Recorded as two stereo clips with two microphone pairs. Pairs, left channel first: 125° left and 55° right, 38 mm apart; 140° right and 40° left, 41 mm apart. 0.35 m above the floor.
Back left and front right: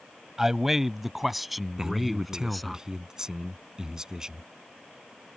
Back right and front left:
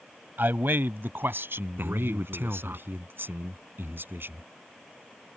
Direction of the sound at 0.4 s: 20° left.